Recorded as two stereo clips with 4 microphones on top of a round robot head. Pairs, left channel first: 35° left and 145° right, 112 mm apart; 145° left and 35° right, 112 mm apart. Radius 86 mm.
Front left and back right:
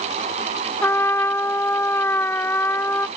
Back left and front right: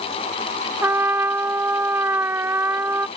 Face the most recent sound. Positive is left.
turn(degrees=0)